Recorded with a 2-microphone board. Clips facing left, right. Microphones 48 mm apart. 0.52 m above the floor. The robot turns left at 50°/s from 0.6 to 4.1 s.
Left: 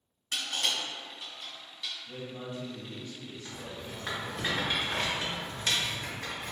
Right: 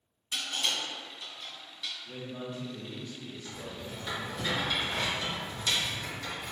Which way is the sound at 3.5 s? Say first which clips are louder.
Even; 15° left (ahead or behind).